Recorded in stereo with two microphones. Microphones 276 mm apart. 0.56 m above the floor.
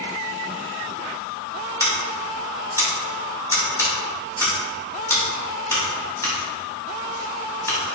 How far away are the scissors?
About 1.6 m.